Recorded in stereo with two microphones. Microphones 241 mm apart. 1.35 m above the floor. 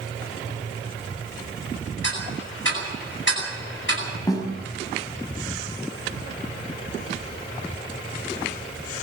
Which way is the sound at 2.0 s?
55° left (ahead or behind).